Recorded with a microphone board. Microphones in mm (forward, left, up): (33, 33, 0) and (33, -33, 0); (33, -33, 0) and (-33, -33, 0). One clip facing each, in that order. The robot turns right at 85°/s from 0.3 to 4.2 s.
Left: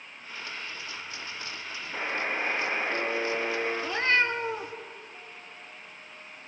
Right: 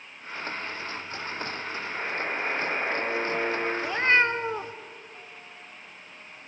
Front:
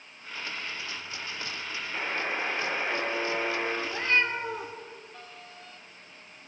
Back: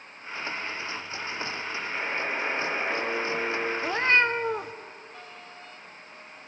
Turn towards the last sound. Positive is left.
turn(degrees=-140)